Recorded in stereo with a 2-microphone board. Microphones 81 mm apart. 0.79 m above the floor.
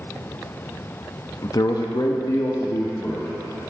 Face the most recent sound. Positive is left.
turn(degrees=35)  # may be behind; listen again after turning